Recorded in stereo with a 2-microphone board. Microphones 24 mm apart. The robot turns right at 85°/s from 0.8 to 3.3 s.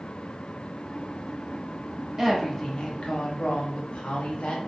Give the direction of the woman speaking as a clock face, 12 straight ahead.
1 o'clock.